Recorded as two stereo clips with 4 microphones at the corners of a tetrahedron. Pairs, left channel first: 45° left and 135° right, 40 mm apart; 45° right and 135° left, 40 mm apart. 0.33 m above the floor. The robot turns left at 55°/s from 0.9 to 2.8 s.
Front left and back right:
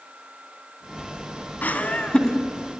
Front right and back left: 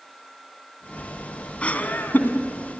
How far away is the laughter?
About 2.5 m.